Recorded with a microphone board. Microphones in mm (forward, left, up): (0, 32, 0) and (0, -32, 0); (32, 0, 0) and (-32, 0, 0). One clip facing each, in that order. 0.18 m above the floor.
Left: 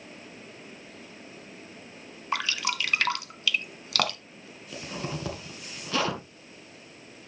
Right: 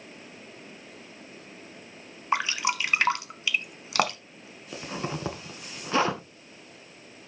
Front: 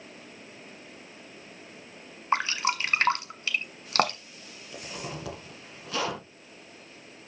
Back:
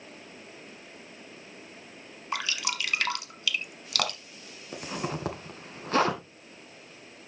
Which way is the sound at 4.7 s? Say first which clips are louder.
Right 2 dB, back 5 dB; 145° right.